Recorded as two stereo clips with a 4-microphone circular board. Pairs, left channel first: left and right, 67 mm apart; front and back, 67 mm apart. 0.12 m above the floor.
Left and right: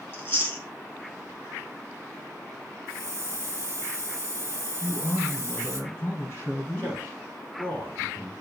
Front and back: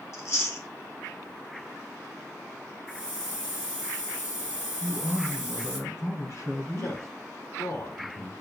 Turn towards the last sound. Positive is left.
turn(degrees=25)